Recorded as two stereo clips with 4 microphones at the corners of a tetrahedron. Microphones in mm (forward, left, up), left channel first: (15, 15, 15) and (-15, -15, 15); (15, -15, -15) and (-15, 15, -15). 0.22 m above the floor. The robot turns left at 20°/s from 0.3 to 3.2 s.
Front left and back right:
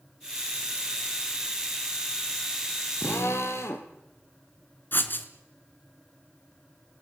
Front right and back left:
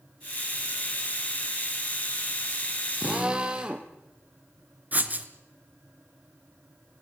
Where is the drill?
70° left, 3 m; by 3.9 s 65° left, 3 m.